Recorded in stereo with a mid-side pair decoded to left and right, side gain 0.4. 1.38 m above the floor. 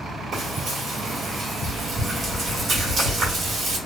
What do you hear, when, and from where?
0.3 s frying: 60° right, 1.8 m